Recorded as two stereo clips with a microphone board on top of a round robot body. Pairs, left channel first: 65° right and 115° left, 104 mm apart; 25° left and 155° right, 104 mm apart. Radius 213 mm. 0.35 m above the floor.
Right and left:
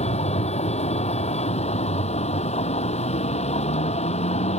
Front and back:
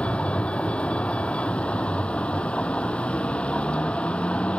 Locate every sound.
0.0 s a vehicle: 55° right